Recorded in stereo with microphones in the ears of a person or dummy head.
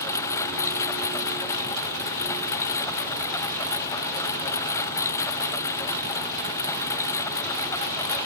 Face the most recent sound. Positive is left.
turn(degrees=15)  # may be behind; listen again after turning